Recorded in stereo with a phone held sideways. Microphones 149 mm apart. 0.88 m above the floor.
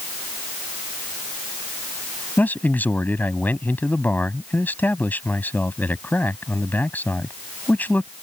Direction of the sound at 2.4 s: 10° left (ahead or behind).